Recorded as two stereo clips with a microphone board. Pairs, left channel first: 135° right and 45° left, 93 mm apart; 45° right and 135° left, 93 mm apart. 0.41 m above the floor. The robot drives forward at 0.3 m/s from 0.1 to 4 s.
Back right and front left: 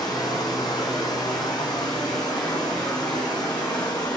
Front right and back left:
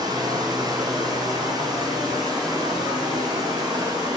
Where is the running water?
Straight behind, 4 m.